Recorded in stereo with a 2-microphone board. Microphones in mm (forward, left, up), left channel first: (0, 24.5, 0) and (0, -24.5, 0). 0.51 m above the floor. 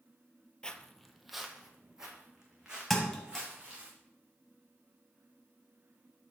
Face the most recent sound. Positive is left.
turn(degrees=5)  # may be behind; listen again after turning